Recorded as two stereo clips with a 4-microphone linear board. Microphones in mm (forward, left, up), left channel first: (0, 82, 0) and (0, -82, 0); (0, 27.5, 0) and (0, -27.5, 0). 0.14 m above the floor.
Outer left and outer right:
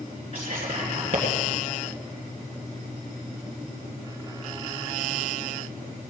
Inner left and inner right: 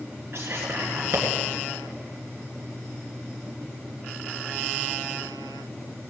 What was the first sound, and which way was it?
Whispering, 45° right (ahead or behind).